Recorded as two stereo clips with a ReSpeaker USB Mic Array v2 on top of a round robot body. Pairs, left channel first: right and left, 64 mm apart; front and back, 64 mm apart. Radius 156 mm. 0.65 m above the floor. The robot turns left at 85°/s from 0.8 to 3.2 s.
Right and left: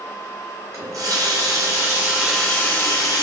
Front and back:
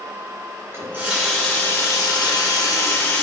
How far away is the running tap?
About 0.8 m.